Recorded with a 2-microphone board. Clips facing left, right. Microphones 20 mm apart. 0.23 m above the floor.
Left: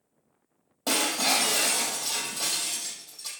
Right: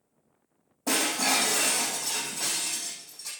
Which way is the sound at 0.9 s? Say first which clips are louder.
Left 1 dB; 60° left (ahead or behind).